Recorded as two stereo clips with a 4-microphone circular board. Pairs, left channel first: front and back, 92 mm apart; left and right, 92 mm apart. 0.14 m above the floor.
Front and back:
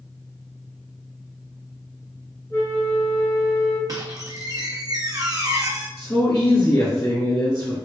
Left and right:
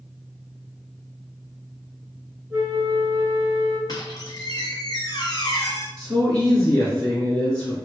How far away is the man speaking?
About 1.7 m.